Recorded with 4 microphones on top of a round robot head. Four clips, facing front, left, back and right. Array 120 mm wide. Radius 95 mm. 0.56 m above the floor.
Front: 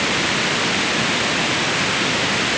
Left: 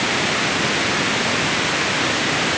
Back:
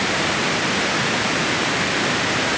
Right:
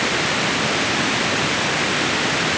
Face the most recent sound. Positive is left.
No sound to turn to.